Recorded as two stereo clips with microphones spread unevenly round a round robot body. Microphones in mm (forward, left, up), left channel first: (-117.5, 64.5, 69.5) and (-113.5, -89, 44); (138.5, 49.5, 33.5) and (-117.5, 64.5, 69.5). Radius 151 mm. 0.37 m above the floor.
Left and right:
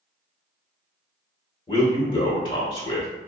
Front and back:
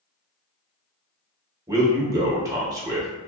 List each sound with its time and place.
1.7 s a man speaking: 100° left, 0.8 m